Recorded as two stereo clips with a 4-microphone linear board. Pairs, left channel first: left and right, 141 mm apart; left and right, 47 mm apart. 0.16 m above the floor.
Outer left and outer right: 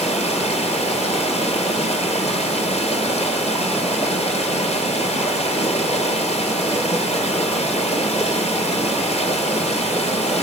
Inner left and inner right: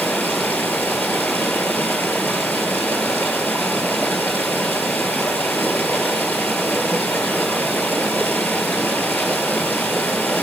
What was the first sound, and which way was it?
Running water, 50° left (ahead or behind).